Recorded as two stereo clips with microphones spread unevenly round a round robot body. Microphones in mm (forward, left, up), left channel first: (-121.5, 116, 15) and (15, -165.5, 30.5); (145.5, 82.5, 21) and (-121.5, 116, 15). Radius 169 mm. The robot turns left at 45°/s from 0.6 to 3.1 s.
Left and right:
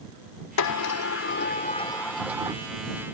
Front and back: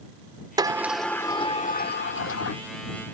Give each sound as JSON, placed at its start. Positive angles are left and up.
{"t": 0.6, "sound": "a sliding door", "azimuth_deg": 100}